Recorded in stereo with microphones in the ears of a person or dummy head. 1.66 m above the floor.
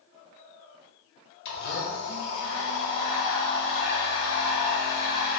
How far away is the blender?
About 1.0 m.